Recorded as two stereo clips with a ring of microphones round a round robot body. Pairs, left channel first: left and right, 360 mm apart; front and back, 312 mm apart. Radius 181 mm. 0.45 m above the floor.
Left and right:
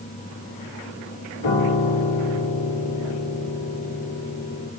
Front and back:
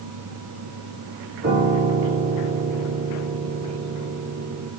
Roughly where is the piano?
Behind left.